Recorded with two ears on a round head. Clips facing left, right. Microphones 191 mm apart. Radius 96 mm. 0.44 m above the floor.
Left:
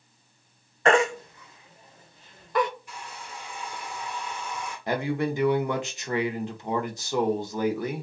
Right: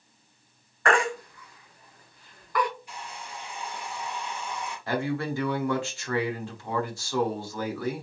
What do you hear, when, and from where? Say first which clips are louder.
0.8 s a baby crying: left 4 dB; 20° left (ahead or behind), 0.6 m
2.9 s a hair dryer: right 1 dB; 45° left (ahead or behind), 2 m
4.9 s a man speaking: left 2 dB; 20° left (ahead or behind), 0.7 m